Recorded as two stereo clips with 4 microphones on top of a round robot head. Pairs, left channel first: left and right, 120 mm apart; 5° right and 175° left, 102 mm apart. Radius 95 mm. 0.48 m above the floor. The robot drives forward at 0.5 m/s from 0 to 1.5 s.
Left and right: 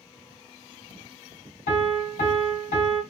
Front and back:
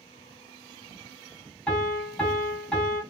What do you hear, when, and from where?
1.7 s a piano: 75° left, 2.5 m